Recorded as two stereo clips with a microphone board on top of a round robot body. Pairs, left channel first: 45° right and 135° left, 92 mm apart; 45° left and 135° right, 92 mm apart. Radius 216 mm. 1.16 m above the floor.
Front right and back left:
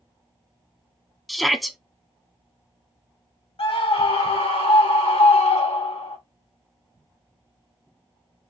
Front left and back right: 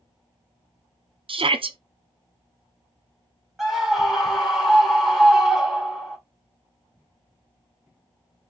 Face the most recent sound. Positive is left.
turn(degrees=-50)